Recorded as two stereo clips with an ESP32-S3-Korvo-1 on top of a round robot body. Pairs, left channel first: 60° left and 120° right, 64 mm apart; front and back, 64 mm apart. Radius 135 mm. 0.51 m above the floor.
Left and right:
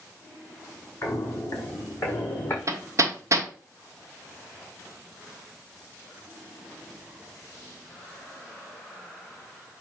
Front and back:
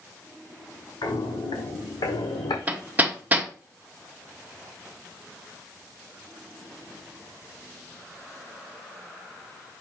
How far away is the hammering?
About 1.5 m.